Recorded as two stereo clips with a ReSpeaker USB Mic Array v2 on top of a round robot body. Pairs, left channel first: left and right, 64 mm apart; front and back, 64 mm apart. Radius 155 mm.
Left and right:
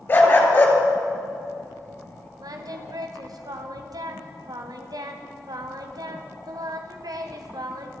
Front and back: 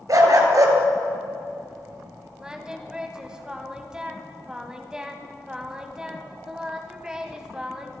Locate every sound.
0.1 s a dog barking: 150° left, 3 m
2.4 s singing: 100° right, 2.0 m